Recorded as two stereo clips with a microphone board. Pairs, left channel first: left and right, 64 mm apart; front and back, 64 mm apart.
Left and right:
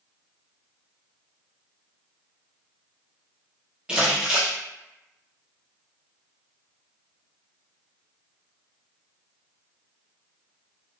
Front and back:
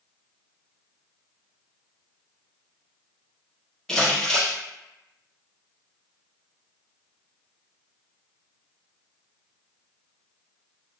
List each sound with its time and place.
3.9 s crumpling: 55° right, 1.0 m